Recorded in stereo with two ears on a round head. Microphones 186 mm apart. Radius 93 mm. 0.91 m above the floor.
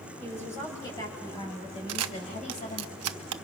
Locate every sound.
0.2 s a woman speaking: 10° left (ahead or behind), 6 m; by 2.9 s 40° left (ahead or behind), 5 m
1.9 s a camera shutter: 85° right, 0.8 m